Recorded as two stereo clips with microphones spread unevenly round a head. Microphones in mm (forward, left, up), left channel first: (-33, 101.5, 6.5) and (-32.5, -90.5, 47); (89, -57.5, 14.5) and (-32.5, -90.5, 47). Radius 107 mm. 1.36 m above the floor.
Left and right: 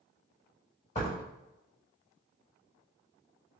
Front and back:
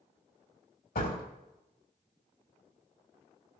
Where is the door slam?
30° left, 5 m.